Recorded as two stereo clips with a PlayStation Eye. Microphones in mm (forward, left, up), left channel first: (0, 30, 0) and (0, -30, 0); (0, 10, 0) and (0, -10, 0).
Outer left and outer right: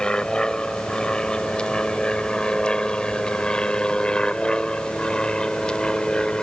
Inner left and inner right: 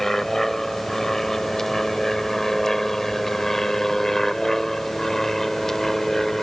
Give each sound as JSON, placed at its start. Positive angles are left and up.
{"t": 0.0, "sound": "an aircraft", "side_deg": 15}